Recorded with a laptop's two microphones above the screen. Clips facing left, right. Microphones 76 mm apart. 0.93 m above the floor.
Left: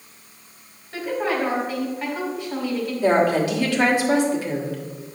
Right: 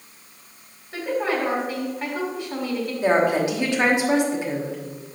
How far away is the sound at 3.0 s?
About 1.4 m.